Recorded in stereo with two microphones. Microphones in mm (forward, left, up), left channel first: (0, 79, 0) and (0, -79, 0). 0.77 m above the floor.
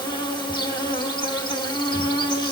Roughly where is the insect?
Left.